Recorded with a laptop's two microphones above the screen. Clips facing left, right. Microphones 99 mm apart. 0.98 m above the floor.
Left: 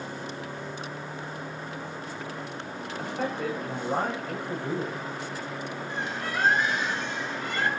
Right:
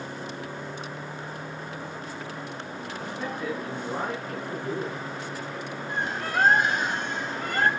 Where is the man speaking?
70° left (ahead or behind), 6.5 m.